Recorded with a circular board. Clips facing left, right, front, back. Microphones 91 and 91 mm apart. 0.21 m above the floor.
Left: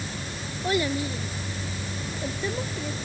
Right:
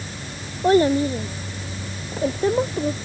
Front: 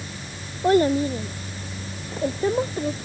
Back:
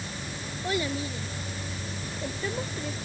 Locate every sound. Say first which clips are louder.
0.6 s a child speaking: right 10 dB, front 12 dB; 45° right; by 3.0 s 50° right